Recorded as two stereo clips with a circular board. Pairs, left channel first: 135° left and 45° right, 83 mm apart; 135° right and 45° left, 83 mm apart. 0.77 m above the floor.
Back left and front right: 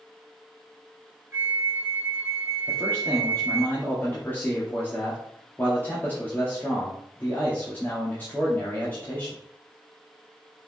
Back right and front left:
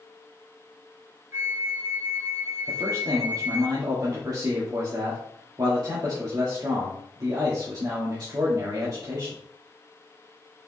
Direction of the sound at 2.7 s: 70° left.